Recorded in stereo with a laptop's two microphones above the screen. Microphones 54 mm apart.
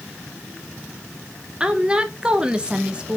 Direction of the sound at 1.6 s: 20° right (ahead or behind).